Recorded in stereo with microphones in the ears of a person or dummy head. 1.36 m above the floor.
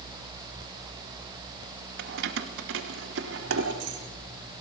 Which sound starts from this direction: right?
Keys jangling, at 2.0 s.